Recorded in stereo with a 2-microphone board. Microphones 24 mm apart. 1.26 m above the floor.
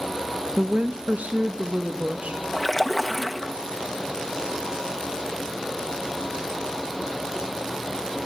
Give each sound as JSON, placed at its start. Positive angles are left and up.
{"t": 0.6, "sound": "a woman speaking", "side_deg": -75, "distance_m": 0.8}
{"t": 2.5, "sound": "a splash", "side_deg": 5, "distance_m": 1.5}